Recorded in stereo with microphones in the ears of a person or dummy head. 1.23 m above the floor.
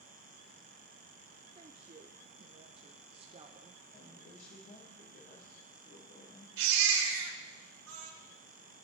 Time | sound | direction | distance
1.6 | a woman speaking | 30° right (ahead or behind) | 0.6 m
3.9 | a woman speaking | 55° left (ahead or behind) | 4.5 m
6.6 | a baby crying | 85° right | 3 m